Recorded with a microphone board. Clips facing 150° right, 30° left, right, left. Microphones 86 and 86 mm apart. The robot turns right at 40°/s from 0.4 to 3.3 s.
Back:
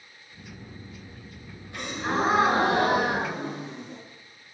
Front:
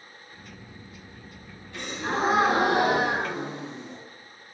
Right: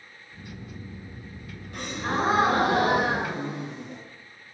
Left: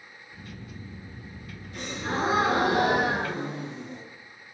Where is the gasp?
80° right, 2.5 m; by 4.0 s 20° right, 2.5 m.